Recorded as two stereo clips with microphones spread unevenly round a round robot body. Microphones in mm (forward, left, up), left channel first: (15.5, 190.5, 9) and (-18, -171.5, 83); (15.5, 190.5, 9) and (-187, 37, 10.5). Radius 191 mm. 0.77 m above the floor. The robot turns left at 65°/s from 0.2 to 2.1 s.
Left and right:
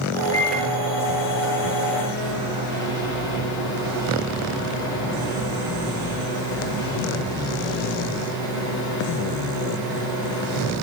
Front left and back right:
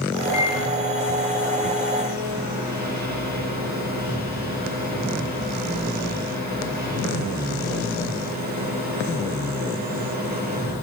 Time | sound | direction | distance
0.3 | a microwave | 30° left | 10 m